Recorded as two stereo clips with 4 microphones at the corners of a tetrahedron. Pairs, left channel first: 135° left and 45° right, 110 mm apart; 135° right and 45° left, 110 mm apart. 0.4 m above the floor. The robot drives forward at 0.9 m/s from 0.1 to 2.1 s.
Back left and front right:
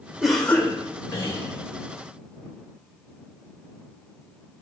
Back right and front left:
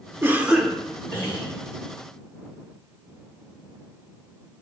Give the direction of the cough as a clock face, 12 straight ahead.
11 o'clock.